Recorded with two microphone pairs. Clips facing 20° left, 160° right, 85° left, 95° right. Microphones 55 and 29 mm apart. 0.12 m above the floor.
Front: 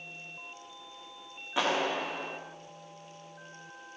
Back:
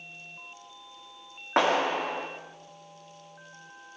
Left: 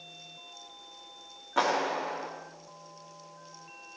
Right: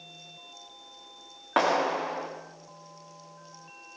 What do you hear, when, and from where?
1.6 s a clap: 130° right, 7 m